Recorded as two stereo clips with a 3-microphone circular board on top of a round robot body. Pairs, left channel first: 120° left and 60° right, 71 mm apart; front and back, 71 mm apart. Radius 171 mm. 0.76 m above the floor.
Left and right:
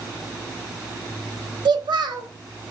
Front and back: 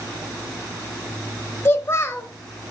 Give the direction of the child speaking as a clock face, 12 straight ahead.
2 o'clock.